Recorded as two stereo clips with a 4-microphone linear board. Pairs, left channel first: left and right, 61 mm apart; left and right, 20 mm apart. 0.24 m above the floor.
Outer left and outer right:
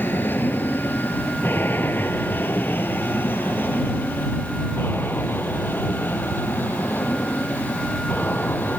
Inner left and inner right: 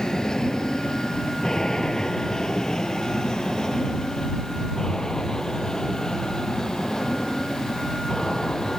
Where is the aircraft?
35° left (ahead or behind).